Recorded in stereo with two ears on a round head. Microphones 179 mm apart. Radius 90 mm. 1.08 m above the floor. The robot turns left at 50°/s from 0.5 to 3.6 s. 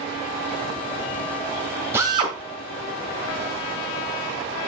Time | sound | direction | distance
1.9 | a drill | 10° right (ahead or behind) | 2 m